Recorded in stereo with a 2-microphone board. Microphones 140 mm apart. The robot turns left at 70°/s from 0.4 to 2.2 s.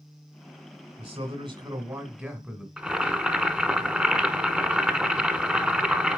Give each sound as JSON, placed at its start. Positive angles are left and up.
{"t": 1.0, "sound": "a man speaking", "azimuth_deg": -80, "distance_m": 1.6}
{"t": 2.8, "sound": "boiling", "side_deg": -5, "distance_m": 1.0}